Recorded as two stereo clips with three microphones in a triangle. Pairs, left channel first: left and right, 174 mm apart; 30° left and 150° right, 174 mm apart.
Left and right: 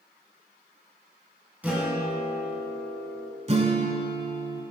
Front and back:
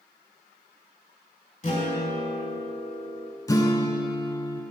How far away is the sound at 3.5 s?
About 0.6 m.